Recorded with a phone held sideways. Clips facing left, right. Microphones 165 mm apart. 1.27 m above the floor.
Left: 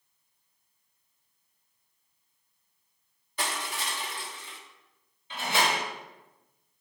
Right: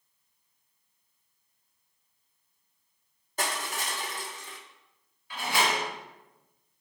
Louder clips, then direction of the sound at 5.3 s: Even; 25° left (ahead or behind).